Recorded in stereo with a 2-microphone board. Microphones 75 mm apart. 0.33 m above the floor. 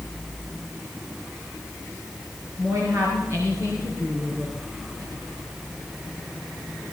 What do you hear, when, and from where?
2.6 s a woman speaking: 40° right (ahead or behind), 5.5 m; by 4.5 s 35° right (ahead or behind), 3.5 m